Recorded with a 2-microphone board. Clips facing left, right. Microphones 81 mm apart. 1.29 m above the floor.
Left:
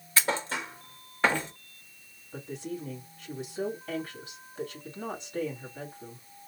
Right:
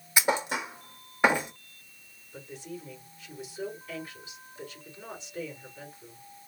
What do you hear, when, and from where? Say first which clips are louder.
0.2 s a thud: right 2 dB; 15° right (ahead or behind), 0.9 m
2.3 s a woman speaking: left 5 dB; 80° left, 2.5 m